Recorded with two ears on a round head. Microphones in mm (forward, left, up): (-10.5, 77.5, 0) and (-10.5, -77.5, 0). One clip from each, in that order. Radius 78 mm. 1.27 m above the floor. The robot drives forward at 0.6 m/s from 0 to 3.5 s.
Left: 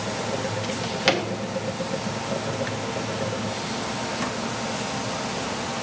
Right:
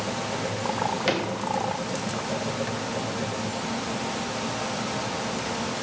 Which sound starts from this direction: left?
A drawer, at 0.6 s.